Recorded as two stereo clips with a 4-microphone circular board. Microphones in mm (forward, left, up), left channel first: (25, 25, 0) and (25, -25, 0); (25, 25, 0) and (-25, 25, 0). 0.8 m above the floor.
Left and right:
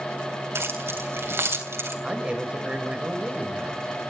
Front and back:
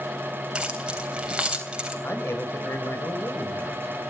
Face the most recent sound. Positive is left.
turn(degrees=-25)